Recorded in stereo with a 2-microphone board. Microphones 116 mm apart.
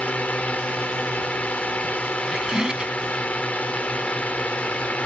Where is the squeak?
5° right (ahead or behind).